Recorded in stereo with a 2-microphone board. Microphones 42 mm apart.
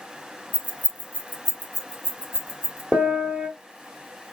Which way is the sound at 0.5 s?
30° right (ahead or behind).